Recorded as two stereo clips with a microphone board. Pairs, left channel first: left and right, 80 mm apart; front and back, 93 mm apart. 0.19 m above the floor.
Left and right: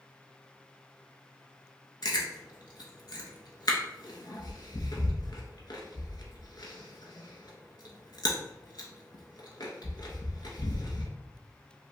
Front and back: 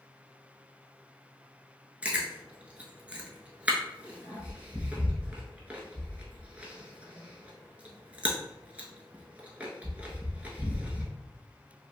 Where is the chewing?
110° left, 0.7 m.